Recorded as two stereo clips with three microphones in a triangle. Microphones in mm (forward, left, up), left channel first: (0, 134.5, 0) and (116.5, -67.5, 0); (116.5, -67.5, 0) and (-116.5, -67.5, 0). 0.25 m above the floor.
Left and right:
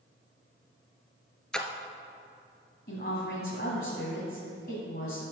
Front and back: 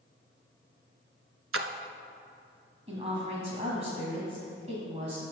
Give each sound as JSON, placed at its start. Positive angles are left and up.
{"t": 1.5, "sound": "a splash", "azimuth_deg": -155, "distance_m": 0.7}
{"t": 2.9, "sound": "a woman speaking", "azimuth_deg": 130, "distance_m": 1.6}